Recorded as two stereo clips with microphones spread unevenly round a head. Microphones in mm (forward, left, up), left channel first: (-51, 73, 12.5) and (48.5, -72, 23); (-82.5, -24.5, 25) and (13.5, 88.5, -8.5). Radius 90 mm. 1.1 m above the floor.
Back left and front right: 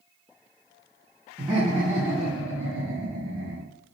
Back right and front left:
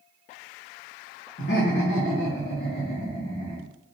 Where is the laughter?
120° right, 1.0 m; by 3.6 s 45° right, 1.0 m.